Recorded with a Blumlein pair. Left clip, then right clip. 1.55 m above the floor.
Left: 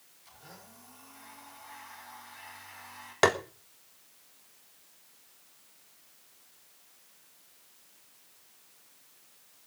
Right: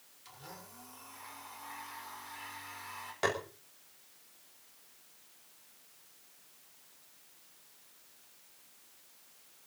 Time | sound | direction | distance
0.2 | a blender | 65° right | 6 m
3.2 | tapping | 60° left | 1.6 m